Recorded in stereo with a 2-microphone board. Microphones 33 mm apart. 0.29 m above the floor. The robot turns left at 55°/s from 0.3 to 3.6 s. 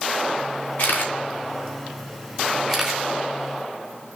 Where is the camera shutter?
60° left (ahead or behind), 3 m; by 3.0 s 15° right (ahead or behind), 3 m.